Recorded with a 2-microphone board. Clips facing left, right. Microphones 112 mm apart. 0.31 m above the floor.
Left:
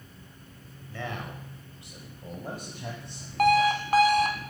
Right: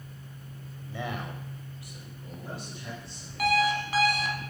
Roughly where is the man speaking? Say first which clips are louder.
Right 1 dB; centre.